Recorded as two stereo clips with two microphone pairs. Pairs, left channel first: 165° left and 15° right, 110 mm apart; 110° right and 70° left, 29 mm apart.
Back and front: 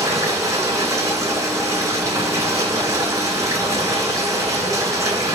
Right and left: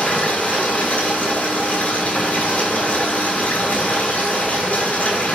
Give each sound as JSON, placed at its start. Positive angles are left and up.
{"t": 0.0, "sound": "running water", "azimuth_deg": -75, "distance_m": 7.5}